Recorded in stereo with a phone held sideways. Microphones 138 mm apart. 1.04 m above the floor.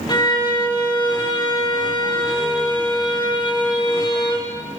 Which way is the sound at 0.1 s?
30° left (ahead or behind).